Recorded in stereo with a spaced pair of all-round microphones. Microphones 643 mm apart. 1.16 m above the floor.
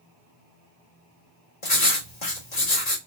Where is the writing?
80° left, 1.3 m.